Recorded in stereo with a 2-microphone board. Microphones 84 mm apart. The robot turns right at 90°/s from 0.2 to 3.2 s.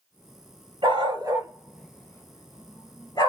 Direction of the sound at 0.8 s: 90° right.